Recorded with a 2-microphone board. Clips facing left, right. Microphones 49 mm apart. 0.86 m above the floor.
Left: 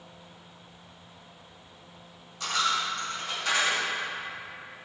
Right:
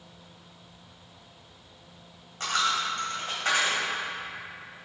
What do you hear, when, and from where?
2.4 s a dropped coin: 45° right (ahead or behind), 2.5 m